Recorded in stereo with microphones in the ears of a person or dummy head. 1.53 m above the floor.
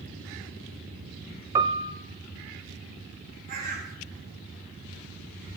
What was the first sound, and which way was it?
A piano, 20° right (ahead or behind).